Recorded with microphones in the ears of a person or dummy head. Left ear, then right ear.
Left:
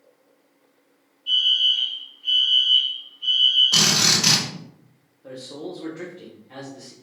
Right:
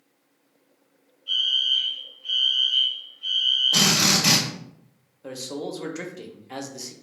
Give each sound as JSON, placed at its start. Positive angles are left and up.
{"t": 1.3, "sound": "a fire alarm", "side_deg": 40, "distance_m": 1.9}
{"t": 3.7, "sound": "a drill", "side_deg": 65, "distance_m": 1.5}
{"t": 5.2, "sound": "a man speaking", "side_deg": -85, "distance_m": 0.7}